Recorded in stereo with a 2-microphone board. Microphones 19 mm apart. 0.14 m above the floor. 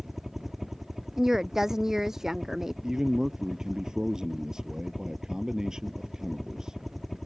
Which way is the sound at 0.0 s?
15° right (ahead or behind).